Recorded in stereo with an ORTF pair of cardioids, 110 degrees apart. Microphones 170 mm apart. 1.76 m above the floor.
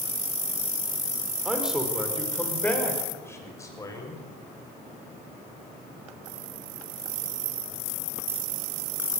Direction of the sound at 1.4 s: 5° right.